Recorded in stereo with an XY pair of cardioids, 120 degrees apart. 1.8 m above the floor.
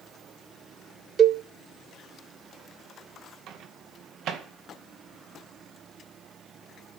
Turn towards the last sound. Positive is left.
turn(degrees=-70)